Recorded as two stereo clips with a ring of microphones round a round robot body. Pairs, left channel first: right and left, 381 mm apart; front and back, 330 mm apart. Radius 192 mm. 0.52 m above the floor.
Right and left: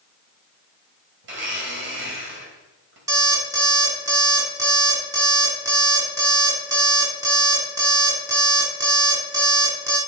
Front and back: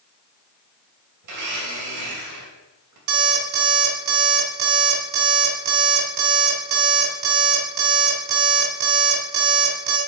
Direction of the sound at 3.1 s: 170° left.